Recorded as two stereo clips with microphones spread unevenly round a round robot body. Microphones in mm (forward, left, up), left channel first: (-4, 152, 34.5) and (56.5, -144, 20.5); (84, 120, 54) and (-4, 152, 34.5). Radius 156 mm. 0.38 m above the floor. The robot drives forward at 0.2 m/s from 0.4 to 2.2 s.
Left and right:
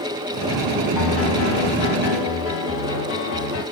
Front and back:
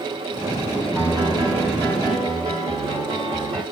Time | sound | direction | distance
0.9 | a piano | 115° left | 2.5 m